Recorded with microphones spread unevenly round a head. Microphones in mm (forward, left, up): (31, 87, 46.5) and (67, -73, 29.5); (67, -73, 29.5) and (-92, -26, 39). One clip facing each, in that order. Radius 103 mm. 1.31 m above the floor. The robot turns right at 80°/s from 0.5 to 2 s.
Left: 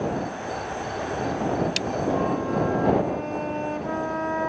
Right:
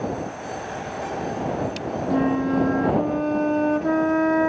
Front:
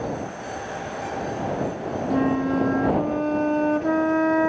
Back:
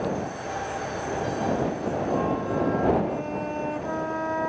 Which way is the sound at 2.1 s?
45° right.